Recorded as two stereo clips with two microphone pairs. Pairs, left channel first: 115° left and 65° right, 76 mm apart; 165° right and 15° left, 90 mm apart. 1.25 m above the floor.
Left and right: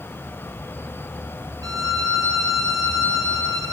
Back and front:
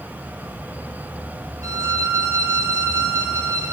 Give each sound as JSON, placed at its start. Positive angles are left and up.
{"t": 1.6, "sound": "a violin", "azimuth_deg": -35, "distance_m": 3.0}